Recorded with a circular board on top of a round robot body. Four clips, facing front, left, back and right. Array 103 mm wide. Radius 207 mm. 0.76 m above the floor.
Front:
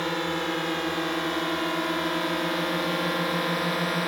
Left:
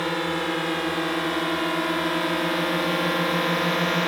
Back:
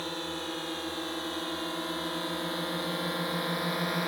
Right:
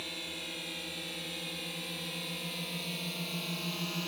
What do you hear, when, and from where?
0.0 s a drone: 60° left; by 4.1 s 75° left